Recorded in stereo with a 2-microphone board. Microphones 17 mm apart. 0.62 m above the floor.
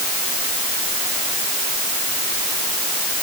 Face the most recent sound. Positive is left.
No sound to turn to.